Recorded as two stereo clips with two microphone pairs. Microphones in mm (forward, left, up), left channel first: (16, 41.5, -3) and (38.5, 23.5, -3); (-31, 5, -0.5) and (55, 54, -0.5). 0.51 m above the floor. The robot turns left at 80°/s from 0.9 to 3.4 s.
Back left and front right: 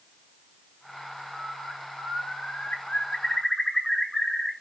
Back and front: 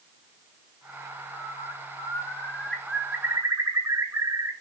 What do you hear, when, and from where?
1.3 s a bird: 120° right, 0.9 m; by 4.5 s 75° left, 0.9 m